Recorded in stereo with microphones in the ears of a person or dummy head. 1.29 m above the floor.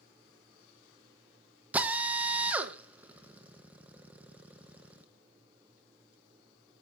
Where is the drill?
10° right (ahead or behind), 1.1 m.